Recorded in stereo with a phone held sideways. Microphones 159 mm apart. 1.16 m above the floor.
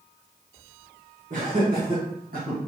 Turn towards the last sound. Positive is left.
turn(degrees=-75)  # may be behind; listen again after turning